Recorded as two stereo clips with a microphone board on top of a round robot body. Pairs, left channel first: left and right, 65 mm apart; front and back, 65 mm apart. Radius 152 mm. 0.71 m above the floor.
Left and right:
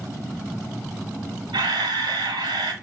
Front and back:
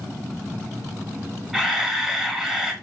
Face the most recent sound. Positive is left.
turn(degrees=-100)